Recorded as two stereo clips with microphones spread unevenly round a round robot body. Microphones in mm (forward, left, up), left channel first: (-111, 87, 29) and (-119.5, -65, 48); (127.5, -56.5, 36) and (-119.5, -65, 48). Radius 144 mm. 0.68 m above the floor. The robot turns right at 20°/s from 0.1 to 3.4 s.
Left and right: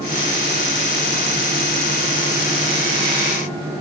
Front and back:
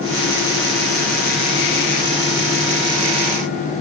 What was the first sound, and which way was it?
Only background noise.